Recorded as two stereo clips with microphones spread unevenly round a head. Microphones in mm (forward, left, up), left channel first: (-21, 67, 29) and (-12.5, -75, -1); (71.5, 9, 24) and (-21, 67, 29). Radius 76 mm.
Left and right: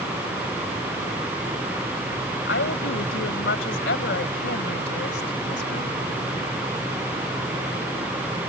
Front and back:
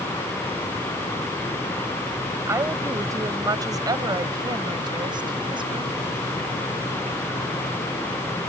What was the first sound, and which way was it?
A woman speaking, 85° left.